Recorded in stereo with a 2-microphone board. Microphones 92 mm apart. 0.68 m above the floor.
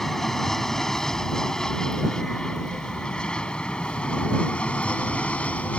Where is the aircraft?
5° left (ahead or behind); by 5.8 s 15° left (ahead or behind).